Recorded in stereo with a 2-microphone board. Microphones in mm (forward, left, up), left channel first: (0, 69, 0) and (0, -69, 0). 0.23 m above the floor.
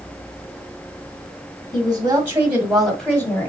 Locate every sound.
1.7 s a woman speaking: 30° right (ahead or behind), 1.7 m; by 3.5 s 20° left (ahead or behind), 1.6 m